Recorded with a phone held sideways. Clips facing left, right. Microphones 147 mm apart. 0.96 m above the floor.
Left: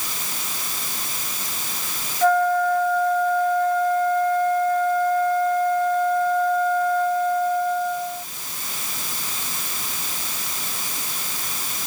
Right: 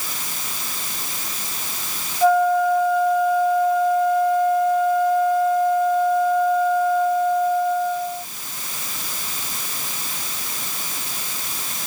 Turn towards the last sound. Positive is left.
turn(degrees=-10)  # may be behind; listen again after turning